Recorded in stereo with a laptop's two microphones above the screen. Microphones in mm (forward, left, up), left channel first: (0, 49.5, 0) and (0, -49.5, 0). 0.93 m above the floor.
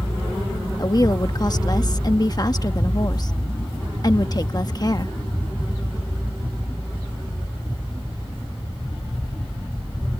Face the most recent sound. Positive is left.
turn(degrees=40)  # may be behind; listen again after turning